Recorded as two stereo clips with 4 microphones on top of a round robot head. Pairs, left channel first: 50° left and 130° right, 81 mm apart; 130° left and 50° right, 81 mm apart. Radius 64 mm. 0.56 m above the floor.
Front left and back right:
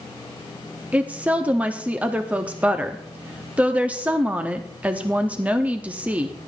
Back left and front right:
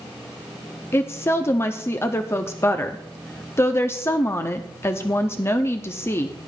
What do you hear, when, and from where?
0.9 s a woman speaking: 165° left, 0.8 m